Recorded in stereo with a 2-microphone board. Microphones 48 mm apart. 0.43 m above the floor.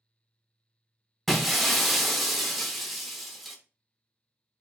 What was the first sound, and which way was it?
Breaking glass, centre (ahead or behind).